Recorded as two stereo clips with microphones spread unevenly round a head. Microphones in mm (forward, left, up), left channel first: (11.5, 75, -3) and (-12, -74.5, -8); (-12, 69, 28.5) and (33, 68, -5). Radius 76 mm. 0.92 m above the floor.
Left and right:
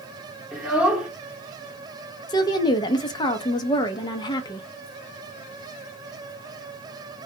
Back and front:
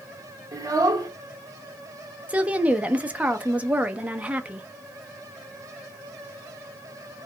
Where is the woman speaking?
15° left, 0.6 m.